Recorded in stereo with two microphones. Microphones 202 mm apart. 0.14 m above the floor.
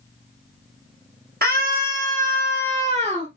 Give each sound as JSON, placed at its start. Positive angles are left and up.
{"t": 1.4, "sound": "a scream", "side_deg": -50, "distance_m": 3.0}